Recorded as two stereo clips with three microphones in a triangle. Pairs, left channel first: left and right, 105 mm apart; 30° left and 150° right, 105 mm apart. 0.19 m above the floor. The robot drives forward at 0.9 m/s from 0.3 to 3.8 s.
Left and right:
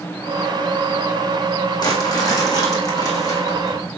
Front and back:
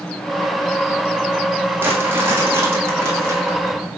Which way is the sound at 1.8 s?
140° left.